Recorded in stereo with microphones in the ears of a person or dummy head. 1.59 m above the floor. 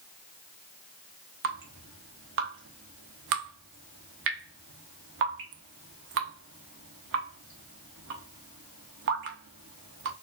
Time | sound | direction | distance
1.4 | dripping | 55° right (ahead or behind) | 0.8 m